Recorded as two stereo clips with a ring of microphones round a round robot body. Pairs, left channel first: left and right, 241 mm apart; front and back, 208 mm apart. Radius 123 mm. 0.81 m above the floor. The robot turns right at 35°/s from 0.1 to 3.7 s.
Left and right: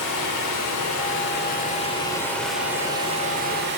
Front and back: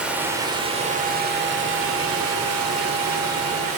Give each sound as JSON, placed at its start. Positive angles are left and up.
{"t": 0.0, "sound": "running water", "azimuth_deg": 95, "distance_m": 1.2}